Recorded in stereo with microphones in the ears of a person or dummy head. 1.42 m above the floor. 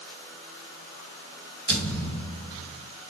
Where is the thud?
45° right (ahead or behind), 5 m.